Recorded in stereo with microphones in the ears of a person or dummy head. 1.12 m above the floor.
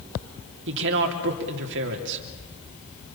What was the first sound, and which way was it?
A woman speaking, 70° right (ahead or behind).